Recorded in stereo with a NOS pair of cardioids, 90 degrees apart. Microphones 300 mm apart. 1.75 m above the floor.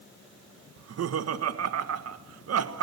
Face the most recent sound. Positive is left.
turn(degrees=-60)